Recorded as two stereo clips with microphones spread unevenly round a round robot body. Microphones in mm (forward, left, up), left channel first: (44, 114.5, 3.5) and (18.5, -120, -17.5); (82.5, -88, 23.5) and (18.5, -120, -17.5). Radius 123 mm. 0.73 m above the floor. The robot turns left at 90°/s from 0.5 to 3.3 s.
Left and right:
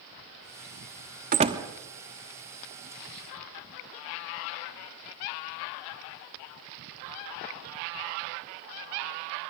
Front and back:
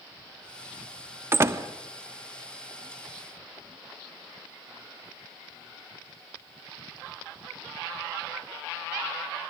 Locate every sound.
1.3 s a door slam: 145° right, 1.0 m; by 1.6 s 175° right, 1.0 m